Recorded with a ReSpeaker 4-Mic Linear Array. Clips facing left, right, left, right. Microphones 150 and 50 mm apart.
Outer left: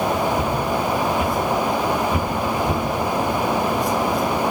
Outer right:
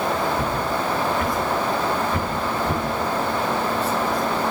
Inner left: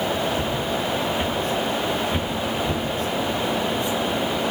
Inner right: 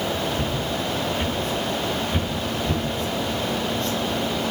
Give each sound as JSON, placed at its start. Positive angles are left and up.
{"t": 0.3, "sound": "footsteps", "side_deg": 15, "distance_m": 9.5}